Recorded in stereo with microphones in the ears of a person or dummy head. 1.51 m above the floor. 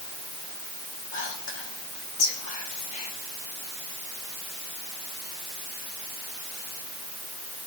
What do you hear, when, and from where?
1.1 s whispering: 45° left (ahead or behind), 2.5 m